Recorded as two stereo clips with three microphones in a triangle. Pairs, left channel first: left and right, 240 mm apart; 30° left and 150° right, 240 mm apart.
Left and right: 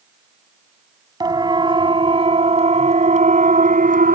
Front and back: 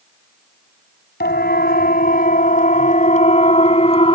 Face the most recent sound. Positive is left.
turn(degrees=-35)